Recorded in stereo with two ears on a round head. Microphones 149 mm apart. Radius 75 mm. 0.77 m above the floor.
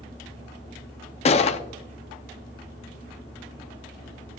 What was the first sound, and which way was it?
A gunshot, 40° left (ahead or behind).